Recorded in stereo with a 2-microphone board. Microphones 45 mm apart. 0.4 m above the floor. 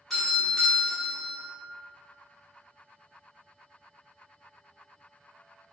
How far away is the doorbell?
About 1.3 m.